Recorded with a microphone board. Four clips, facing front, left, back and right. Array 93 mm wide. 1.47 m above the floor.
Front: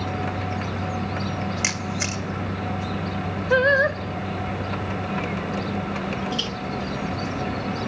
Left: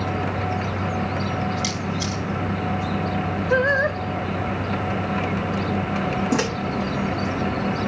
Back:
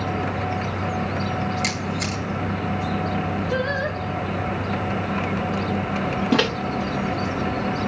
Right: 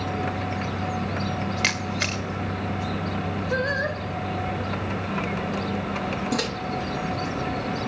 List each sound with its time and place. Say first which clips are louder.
1.6 s a camera shutter: even, back 2 dB; 70° right, 1.9 m
3.5 s singing: left 7 dB, front 10 dB; 30° left, 1.7 m
6.3 s a microwave: left 5 dB, back 9 dB; 155° left, 0.8 m